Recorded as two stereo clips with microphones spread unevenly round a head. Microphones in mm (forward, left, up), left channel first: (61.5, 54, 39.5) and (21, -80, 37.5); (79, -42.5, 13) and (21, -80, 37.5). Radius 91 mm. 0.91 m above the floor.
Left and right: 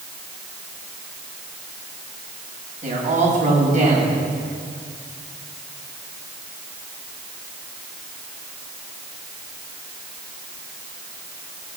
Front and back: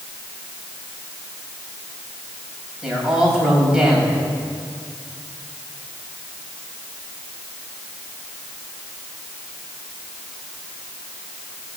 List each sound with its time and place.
2.8 s a man speaking: 65° right, 5.5 m